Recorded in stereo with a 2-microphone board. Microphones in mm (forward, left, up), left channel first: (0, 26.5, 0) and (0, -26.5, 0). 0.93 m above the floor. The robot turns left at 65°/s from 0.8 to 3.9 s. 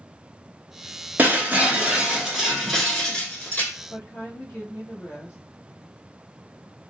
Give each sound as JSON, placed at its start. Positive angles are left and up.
{"t": 1.2, "sound": "breaking glass", "azimuth_deg": -85, "distance_m": 1.0}
{"t": 3.9, "sound": "a woman speaking", "side_deg": 50, "distance_m": 1.3}